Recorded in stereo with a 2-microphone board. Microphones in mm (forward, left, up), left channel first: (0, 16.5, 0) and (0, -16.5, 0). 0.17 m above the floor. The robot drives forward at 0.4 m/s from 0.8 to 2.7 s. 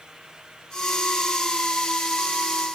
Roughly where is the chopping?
I don't hear chopping.